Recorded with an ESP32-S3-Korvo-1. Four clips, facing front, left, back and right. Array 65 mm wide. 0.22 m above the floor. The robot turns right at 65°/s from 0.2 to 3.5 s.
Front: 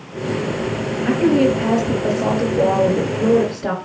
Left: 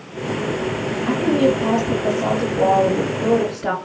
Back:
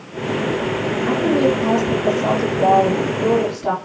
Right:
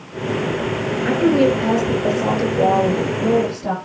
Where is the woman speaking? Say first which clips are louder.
Right 2 dB, front 2 dB; 100° right, 4 m; by 3.8 s 60° left, 4 m.